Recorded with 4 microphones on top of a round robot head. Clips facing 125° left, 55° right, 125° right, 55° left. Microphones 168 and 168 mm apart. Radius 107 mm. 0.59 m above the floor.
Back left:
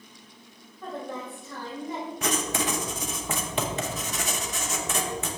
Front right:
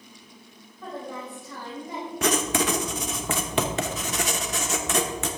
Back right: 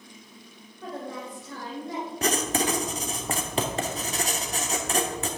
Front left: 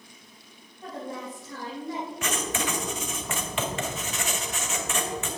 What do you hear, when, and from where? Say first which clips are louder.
0.8 s a woman speaking: even, even; 140° right, 3 m
2.2 s writing: front right 5 dB, back right 6 dB; 70° right, 1.0 m